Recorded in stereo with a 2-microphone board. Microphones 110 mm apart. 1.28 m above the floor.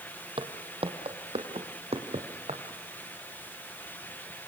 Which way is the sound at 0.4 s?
55° right (ahead or behind).